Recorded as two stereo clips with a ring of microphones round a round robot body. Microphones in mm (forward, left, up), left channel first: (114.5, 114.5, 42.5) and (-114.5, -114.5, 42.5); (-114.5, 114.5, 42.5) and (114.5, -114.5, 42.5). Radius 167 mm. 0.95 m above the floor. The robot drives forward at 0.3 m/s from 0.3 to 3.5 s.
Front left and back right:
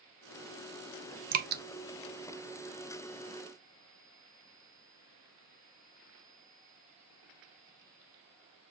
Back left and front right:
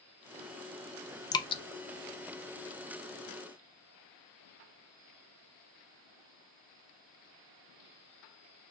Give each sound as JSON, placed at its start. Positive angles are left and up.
{"t": 1.3, "sound": "dripping", "azimuth_deg": -160, "distance_m": 0.7}